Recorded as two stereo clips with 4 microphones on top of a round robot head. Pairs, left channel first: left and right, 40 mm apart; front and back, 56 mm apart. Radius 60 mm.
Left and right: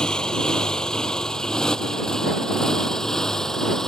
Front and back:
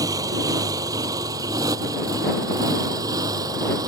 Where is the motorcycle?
165° left; by 3.9 s 170° left.